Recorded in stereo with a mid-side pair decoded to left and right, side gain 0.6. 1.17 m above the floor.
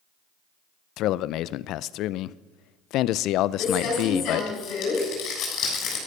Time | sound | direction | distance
1.0 | a man speaking | 65° left | 0.5 m
3.6 | crumpling | 60° left | 7 m